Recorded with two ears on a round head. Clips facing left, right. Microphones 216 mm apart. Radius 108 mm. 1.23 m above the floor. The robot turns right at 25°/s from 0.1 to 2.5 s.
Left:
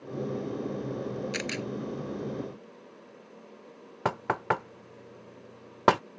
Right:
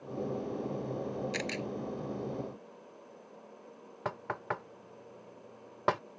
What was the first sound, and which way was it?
A camera shutter, 15° left (ahead or behind).